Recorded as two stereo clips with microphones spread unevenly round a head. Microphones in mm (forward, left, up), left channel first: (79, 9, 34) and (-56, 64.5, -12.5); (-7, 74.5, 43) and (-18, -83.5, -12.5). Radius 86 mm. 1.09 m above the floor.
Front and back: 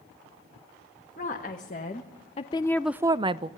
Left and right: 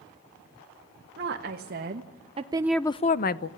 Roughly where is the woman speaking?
Right.